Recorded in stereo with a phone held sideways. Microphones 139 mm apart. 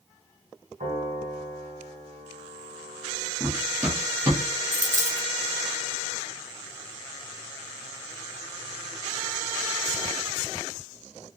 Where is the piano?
70° right (ahead or behind), 1.5 m.